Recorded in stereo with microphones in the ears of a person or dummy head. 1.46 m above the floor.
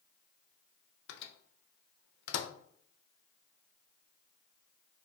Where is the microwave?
70° left (ahead or behind), 0.5 m.